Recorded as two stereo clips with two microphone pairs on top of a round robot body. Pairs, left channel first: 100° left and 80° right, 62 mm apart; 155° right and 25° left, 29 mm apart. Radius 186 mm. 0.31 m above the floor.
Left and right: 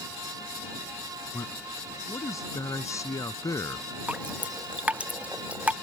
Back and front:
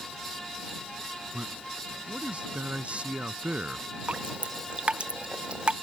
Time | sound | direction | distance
1.3 | a man speaking | 70° left | ?
4.1 | dripping | 20° right | ?